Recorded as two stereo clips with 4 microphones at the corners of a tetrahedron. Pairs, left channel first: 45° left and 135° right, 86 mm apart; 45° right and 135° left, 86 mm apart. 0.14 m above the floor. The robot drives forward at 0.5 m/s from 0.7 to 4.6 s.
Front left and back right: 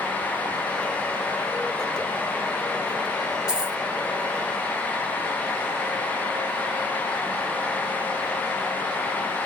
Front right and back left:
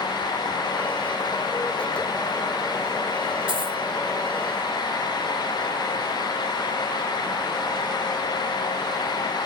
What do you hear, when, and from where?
3.5 s a dropped coin: 145° left, 1.2 m